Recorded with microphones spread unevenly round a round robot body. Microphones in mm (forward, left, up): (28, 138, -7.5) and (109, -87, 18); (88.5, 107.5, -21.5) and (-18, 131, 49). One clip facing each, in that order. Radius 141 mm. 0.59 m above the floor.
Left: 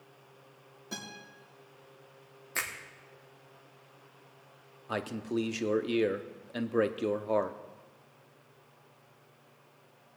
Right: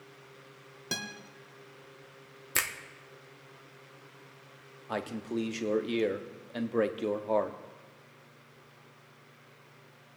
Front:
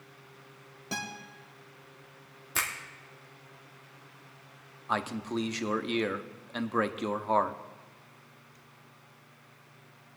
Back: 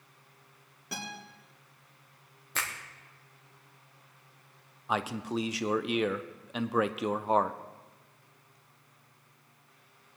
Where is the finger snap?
45° right, 1.1 m.